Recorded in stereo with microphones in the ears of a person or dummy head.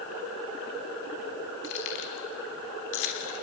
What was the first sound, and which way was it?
Keys jangling, 55° left (ahead or behind).